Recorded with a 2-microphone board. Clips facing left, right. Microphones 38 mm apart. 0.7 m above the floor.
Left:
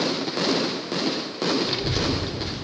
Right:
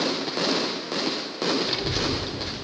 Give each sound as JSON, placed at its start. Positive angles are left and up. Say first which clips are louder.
{"t": 1.6, "sound": "a child speaking", "louder": "left 1 dB", "side_deg": 0, "distance_m": 0.7}